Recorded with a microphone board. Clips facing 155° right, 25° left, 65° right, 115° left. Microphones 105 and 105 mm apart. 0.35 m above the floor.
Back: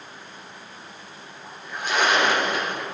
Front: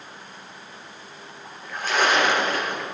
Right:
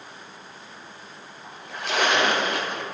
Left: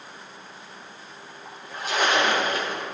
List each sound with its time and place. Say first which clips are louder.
1.4 s a splash: even, right 1 dB; 85° right, 4 m